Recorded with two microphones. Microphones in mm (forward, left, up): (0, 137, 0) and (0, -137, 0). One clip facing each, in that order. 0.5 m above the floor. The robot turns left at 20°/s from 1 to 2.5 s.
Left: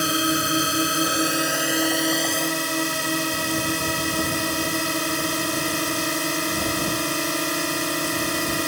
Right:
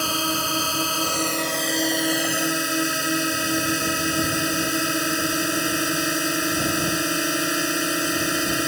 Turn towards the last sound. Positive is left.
turn(degrees=-10)